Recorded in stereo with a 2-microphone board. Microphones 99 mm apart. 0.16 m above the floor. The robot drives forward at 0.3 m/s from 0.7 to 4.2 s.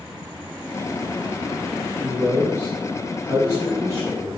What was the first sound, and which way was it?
A man speaking, 30° right (ahead or behind).